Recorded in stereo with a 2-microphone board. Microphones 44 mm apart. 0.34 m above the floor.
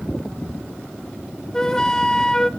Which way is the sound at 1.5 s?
15° left (ahead or behind).